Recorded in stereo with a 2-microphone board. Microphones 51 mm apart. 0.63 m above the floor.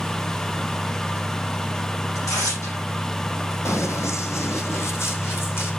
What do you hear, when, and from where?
2.1 s tearing paper: 90° left, 9.5 m
3.6 s running footsteps: 70° left (ahead or behind), 1.7 m; by 5.7 s 55° left (ahead or behind), 3 m